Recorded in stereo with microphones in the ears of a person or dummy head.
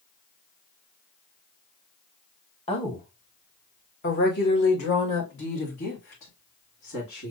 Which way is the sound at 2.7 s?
25° left (ahead or behind).